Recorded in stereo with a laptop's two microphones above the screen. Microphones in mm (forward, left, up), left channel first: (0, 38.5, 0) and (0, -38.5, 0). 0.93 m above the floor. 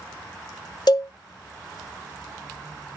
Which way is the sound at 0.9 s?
60° left (ahead or behind).